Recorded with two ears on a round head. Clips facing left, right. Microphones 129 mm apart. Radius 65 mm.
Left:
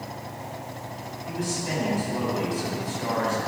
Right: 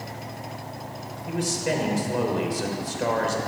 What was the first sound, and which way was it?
A man speaking, 60° right (ahead or behind).